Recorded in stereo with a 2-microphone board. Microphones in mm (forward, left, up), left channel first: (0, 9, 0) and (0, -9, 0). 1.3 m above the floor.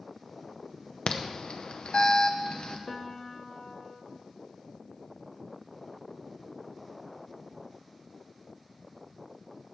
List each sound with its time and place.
1.1 s an alarm: 55° left (ahead or behind), 0.8 m
2.9 s a piano: 20° left (ahead or behind), 1.1 m